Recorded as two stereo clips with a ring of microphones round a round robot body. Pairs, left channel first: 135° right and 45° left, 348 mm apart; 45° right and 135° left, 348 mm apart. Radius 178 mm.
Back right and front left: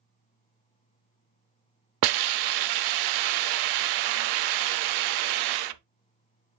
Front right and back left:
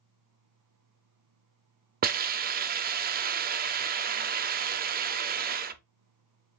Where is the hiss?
70° left, 0.5 m.